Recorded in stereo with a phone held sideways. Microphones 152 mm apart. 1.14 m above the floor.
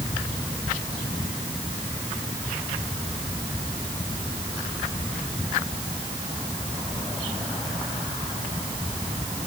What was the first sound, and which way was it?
Only background noise.